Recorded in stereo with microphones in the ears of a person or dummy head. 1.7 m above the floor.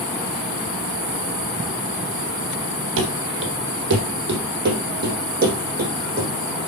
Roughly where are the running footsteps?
Right.